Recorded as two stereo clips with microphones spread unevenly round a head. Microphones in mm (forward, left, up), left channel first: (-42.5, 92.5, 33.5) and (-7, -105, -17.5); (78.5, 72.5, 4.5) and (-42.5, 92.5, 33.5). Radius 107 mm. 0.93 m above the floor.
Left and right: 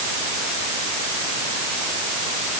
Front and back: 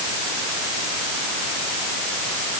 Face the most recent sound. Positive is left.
No sound to turn to.